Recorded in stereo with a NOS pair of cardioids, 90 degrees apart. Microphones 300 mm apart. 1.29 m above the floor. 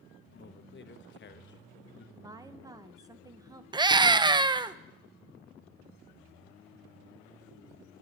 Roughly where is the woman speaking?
Ahead.